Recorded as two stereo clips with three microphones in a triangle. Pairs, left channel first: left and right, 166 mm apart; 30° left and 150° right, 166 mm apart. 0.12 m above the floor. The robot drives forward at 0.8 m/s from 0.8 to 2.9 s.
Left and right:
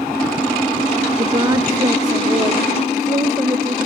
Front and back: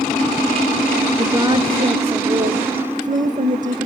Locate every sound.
1.2 s a woman speaking: 110° right, 1.5 m; by 3.9 s 155° right, 2 m